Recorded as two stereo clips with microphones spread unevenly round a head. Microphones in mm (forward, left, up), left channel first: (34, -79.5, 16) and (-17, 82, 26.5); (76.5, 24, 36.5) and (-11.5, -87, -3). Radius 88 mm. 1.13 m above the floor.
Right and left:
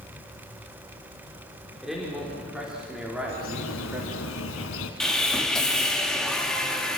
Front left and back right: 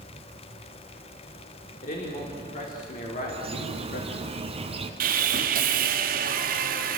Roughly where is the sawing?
Behind.